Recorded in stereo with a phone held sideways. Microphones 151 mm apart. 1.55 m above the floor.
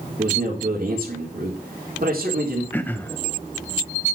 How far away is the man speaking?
About 3.5 m.